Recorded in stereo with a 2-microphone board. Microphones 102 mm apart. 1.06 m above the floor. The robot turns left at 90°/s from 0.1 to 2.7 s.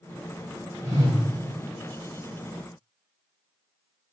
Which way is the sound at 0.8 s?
160° left.